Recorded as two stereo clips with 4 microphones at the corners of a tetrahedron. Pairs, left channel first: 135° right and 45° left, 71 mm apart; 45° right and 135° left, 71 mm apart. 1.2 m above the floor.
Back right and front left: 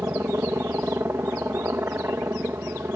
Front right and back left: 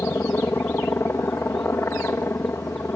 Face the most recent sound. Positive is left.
turn(degrees=0)